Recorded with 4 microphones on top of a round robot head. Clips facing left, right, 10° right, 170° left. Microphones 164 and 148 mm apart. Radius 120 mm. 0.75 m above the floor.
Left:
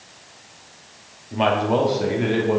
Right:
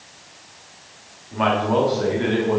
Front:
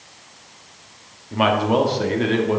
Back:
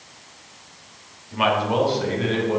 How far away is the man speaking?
About 1.6 m.